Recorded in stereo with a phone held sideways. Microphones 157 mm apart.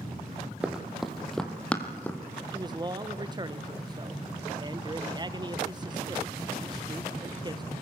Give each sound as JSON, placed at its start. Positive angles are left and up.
{"t": 0.6, "sound": "running footsteps", "side_deg": -5, "distance_m": 1.9}
{"t": 2.5, "sound": "a man speaking", "side_deg": -25, "distance_m": 0.8}